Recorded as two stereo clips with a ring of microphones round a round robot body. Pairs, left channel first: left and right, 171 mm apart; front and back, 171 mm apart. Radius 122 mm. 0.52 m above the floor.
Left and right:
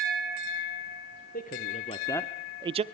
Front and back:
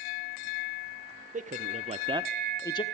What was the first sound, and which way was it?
A man speaking, 135° left.